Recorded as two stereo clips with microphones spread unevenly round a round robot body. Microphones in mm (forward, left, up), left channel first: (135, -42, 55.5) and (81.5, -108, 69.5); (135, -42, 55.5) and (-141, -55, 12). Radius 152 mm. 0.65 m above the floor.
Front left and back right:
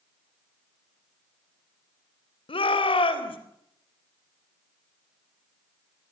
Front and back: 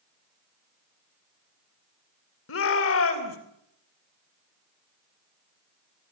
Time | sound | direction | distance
2.5 | a shout | 55° left | 3.5 m